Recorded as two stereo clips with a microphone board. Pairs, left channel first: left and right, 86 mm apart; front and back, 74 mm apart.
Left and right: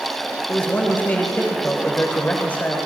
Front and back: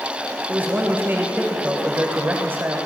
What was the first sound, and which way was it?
A man speaking, 145° left.